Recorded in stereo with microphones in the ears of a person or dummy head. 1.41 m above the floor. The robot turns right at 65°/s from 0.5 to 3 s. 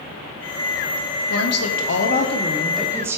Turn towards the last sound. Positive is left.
turn(degrees=-165)